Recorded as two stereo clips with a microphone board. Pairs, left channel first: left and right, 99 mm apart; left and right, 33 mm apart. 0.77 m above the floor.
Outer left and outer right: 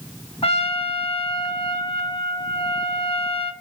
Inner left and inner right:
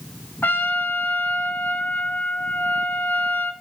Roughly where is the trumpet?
Left.